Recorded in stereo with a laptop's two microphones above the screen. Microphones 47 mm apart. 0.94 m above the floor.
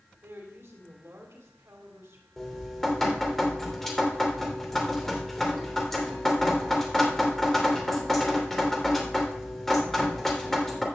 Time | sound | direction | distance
0.2 | a woman speaking | 70° right (ahead or behind) | 3 m
2.4 | dripping | 10° left (ahead or behind) | 2.5 m